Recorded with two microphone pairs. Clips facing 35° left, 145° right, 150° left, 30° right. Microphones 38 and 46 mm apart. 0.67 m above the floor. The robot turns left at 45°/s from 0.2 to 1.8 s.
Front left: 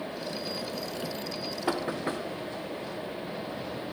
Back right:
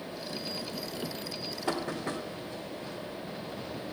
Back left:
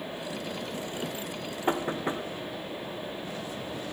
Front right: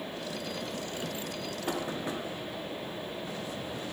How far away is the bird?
No bird in this recording.